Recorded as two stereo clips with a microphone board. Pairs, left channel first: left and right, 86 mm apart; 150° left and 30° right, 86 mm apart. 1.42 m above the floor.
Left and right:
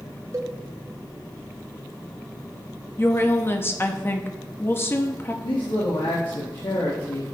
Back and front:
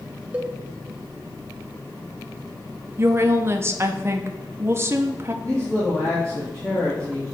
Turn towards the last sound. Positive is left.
turn(degrees=75)